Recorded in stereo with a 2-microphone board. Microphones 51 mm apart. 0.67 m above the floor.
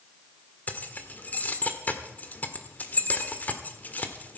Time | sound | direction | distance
0.7 | keys jangling | 35° left (ahead or behind) | 1.5 m